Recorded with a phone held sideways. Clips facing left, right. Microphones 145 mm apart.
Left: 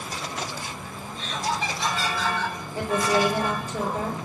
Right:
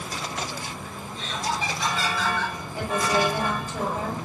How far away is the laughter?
About 1.6 m.